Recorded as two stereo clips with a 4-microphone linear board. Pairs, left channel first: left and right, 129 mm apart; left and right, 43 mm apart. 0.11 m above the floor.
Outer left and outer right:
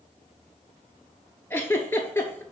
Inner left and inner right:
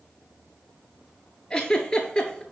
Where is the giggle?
20° left (ahead or behind), 0.6 m.